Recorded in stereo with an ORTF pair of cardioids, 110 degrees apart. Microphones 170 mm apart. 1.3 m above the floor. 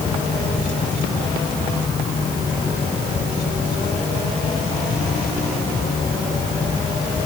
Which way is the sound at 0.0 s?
25° left.